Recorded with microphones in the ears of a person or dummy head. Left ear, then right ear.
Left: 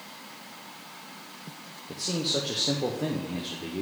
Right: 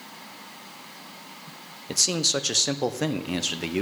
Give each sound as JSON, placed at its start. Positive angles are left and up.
{"t": 1.9, "sound": "a man speaking", "side_deg": -55, "distance_m": 0.5}